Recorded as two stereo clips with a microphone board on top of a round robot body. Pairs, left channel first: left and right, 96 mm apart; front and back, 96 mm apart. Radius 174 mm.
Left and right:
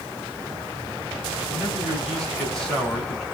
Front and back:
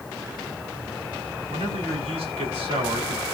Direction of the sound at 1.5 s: 175° left.